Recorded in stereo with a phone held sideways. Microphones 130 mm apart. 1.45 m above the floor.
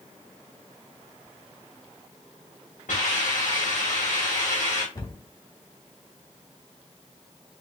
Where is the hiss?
80° left, 2.5 m.